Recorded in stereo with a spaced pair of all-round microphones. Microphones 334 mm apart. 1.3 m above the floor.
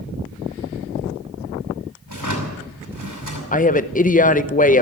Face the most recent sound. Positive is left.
turn(degrees=25)  # may be behind; listen again after turning